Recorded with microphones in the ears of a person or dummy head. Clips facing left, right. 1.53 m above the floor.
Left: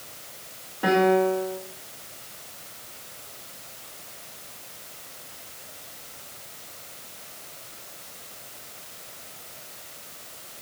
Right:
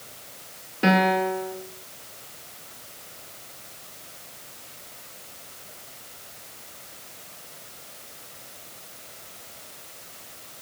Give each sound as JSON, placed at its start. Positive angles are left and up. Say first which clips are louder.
{"t": 0.8, "sound": "a piano", "louder": "left 2 dB", "side_deg": -25, "distance_m": 2.0}